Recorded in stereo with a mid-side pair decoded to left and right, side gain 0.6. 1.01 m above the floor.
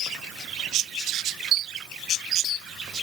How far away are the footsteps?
No footsteps in this recording.